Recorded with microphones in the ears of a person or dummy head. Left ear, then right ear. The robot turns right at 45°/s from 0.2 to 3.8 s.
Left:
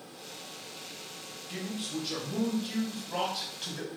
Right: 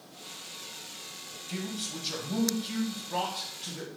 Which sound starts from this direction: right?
A man speaking, at 1.5 s.